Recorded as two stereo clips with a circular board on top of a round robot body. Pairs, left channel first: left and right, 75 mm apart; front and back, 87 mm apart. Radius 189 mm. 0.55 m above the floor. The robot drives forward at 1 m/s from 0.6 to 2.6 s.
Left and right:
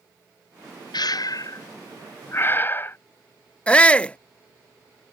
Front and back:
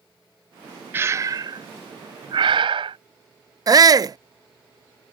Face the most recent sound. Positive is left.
turn(degrees=160)